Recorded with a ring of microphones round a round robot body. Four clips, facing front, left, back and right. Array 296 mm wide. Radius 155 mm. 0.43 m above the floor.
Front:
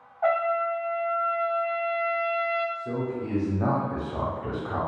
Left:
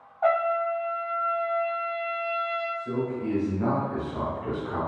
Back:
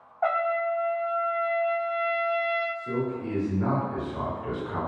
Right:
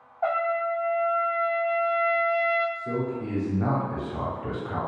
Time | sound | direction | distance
0.2 | a trumpet | 160° left | 1.0 m
2.8 | a man speaking | 20° right | 1.1 m